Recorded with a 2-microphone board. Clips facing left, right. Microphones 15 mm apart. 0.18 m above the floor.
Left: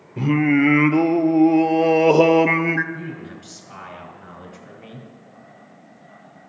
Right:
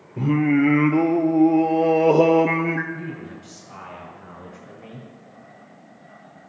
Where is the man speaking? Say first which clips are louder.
Even; 45° left (ahead or behind), 2.5 m.